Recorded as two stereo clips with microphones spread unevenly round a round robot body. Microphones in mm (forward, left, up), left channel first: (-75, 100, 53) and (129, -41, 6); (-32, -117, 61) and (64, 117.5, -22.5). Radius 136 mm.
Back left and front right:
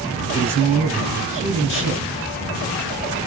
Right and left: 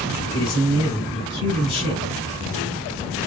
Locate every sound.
0.3 s a man speaking: 70° right, 1.2 m